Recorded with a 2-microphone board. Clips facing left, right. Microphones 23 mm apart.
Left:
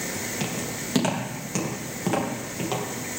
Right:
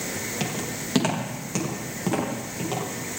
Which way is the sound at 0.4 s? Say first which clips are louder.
Even; 20° right (ahead or behind).